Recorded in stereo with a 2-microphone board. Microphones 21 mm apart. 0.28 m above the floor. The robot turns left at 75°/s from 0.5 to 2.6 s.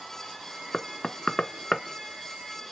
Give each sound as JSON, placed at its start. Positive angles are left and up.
{"t": 0.7, "sound": "knocking", "side_deg": 30, "distance_m": 0.7}